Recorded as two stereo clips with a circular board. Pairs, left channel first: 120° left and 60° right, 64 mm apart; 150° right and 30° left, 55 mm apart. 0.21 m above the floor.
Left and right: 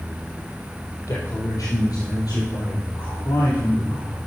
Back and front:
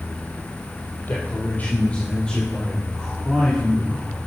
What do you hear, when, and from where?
1.1 s a man speaking: 155° left, 5.5 m; by 4.2 s 110° left, 6.5 m